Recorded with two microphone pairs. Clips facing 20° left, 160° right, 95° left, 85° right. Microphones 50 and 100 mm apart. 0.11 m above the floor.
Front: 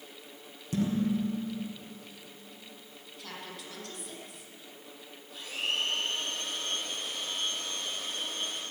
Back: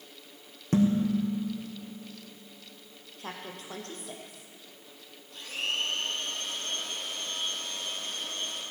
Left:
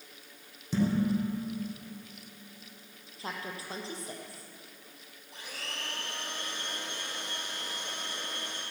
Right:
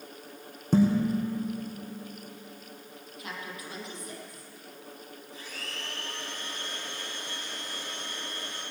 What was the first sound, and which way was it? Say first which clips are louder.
Dishes clattering: back 4 dB, right 4 dB; 120° right.